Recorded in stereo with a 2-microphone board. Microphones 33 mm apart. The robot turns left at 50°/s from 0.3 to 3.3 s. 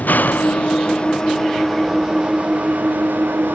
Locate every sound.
0.0 s an engine running: 70° left; by 3.5 s 80° right